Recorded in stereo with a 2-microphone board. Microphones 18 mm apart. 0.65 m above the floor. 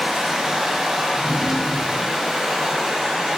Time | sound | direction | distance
0.0 | running water | 40° right (ahead or behind) | 0.7 m
1.1 | a drawer | 25° right (ahead or behind) | 0.6 m